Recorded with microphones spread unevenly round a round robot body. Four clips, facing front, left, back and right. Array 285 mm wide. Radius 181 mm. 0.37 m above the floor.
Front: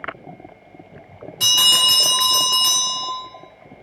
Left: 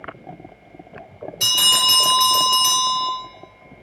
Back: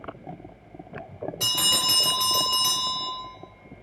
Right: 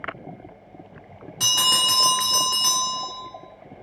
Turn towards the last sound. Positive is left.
turn(degrees=-100)